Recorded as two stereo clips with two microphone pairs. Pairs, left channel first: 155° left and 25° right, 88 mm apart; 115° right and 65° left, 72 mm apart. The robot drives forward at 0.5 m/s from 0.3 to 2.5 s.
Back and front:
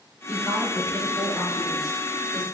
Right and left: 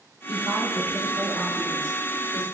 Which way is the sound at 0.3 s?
35° left.